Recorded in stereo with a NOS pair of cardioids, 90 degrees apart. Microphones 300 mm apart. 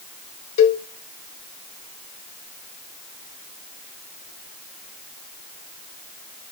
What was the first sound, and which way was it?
A cowbell, 45° left.